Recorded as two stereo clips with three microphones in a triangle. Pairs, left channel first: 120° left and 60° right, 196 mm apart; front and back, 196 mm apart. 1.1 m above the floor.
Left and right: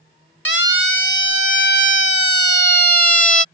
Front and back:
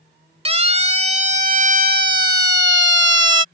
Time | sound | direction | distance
0.5 | a siren | 120° left | ?